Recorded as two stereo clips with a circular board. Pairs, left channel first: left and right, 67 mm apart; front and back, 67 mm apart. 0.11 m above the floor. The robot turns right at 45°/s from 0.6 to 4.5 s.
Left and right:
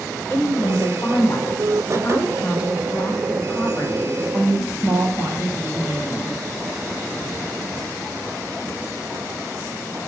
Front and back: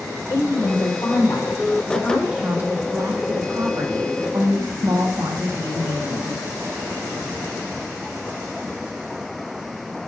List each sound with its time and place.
0.3 s a woman speaking: 30° left, 4 m; by 6.4 s 155° right, 4 m